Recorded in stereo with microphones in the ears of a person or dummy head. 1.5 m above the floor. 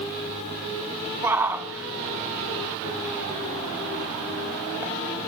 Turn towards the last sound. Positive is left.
turn(degrees=-10)  # may be behind; listen again after turning